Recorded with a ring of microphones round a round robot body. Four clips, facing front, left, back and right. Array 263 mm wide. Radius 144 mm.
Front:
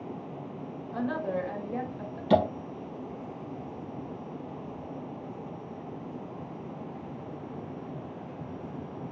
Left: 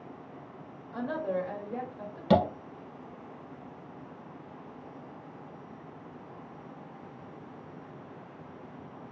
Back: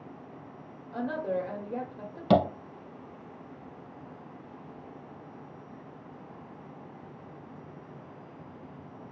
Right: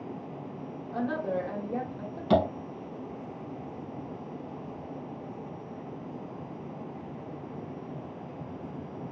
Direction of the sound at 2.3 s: 155° left.